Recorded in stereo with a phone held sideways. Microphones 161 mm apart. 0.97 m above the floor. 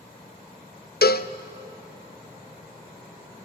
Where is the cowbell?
75° left (ahead or behind), 0.6 m.